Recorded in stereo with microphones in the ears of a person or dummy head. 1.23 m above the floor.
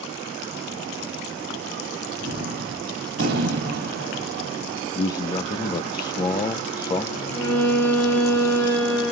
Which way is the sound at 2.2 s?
65° right (ahead or behind).